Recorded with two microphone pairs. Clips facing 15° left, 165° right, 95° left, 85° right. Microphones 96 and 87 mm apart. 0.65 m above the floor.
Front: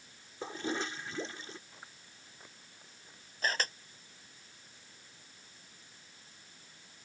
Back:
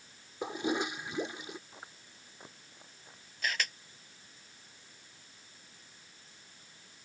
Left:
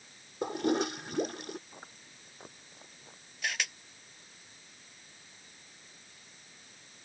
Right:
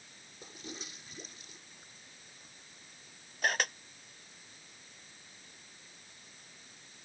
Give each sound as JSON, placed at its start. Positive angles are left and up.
{"t": 0.4, "sound": "a toilet flushing", "azimuth_deg": 120}
{"t": 1.7, "sound": "chewing", "azimuth_deg": 125}
{"t": 3.4, "sound": "a camera shutter", "azimuth_deg": -40}